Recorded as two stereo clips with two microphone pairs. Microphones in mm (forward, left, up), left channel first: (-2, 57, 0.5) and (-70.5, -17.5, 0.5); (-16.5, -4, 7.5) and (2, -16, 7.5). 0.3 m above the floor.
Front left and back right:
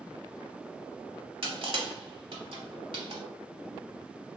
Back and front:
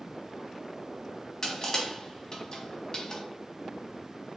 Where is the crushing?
155° right, 0.9 m.